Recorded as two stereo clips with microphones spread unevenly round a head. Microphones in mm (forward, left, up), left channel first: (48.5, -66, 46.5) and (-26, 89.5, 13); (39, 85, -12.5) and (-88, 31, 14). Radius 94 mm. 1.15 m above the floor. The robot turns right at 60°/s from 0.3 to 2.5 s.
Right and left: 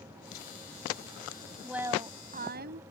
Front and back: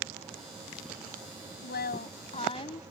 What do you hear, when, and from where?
1.6 s a woman speaking: 25° left; by 2.8 s 75° left